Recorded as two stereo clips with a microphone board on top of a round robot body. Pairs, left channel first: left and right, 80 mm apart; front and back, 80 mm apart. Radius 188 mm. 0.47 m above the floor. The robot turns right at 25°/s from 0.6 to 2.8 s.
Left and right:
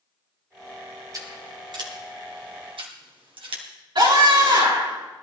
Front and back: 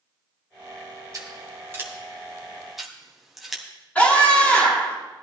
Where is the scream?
75° right, 7.5 m.